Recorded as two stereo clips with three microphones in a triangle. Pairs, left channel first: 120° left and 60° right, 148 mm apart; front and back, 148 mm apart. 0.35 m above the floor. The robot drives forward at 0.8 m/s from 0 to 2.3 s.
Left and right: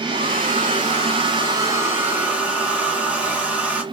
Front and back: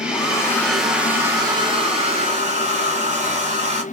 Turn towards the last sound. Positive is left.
turn(degrees=-140)